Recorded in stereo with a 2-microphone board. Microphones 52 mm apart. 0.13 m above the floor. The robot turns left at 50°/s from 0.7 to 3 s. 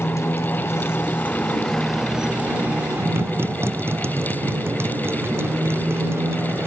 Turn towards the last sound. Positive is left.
turn(degrees=-50)